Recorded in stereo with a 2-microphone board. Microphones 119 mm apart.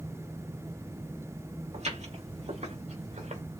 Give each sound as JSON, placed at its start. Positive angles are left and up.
{"t": 1.7, "sound": "footsteps", "side_deg": -70, "distance_m": 4.0}